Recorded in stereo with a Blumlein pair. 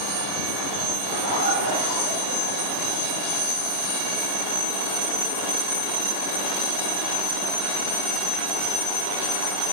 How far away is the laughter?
About 6 m.